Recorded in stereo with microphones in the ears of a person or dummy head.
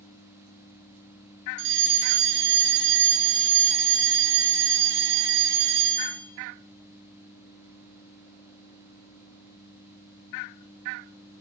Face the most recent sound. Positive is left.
turn(degrees=-55)  # may be behind; listen again after turning